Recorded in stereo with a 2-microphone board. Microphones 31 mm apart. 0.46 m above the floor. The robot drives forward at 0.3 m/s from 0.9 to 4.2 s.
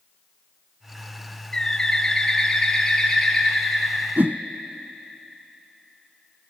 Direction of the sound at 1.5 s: 25° left (ahead or behind).